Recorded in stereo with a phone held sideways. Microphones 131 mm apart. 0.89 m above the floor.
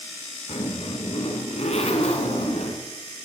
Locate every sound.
0.5 s a zipper: 60° left (ahead or behind), 2 m